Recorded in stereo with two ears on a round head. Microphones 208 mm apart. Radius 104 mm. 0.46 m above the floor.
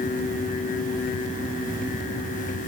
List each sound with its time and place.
Only background noise.